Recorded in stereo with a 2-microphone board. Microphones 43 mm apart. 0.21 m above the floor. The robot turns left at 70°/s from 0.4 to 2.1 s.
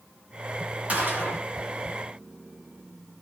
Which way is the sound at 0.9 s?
40° right.